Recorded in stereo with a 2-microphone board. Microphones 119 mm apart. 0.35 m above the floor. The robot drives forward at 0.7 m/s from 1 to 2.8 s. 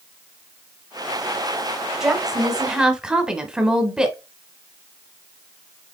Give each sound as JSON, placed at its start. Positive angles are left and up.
{"t": 2.0, "sound": "a woman speaking", "side_deg": -5, "distance_m": 1.2}